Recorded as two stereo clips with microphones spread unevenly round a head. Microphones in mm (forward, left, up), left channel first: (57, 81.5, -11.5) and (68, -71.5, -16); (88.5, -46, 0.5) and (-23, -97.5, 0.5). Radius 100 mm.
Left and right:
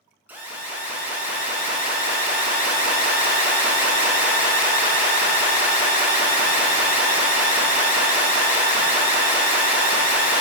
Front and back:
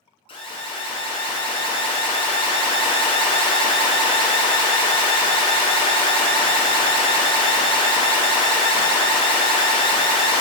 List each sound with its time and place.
0.3 s an alarm: 10° right, 0.7 m